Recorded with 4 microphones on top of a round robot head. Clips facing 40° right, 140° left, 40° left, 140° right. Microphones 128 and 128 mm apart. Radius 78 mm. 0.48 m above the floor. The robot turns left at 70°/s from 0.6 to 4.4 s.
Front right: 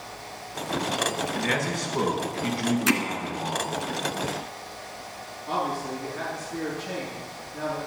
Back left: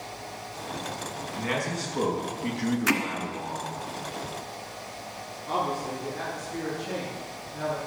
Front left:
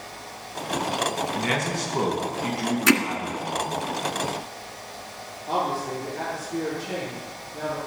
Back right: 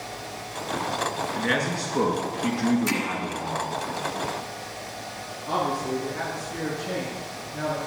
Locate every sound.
1.4 s a man speaking: 40° left, 5 m; by 3.7 s 125° right, 5 m
2.9 s hammering: 20° left, 1.5 m; by 3.0 s 10° left, 1.5 m
5.5 s a man speaking: 130° right, 7 m